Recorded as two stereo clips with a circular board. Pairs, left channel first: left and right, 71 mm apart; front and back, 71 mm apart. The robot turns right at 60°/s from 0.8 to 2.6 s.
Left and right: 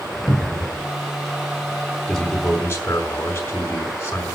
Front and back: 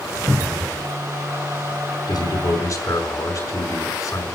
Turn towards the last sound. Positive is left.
turn(degrees=30)